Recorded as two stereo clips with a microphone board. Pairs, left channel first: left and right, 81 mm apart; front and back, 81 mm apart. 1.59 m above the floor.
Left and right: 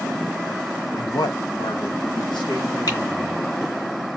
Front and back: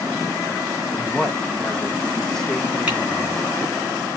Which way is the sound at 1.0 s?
80° left.